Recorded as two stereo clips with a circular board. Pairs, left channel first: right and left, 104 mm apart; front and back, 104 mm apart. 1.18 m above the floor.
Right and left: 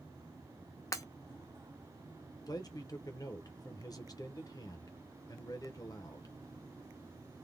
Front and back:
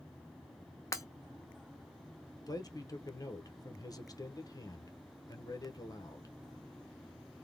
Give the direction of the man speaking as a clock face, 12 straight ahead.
2 o'clock.